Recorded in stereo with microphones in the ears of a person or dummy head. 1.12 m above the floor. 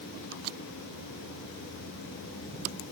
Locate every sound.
Only background noise.